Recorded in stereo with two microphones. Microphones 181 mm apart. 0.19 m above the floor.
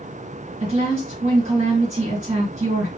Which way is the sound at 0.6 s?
40° right (ahead or behind).